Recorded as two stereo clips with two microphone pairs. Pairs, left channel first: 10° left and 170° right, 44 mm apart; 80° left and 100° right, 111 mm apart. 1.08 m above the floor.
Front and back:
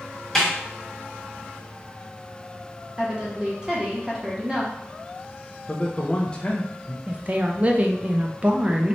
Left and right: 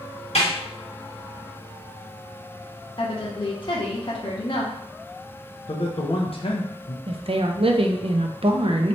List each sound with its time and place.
0.3 s a snare drum: 95° left, 1.5 m
3.0 s a woman speaking: 120° left, 0.9 m
5.7 s a man speaking: 70° left, 0.7 m
7.1 s a woman speaking: 110° right, 0.6 m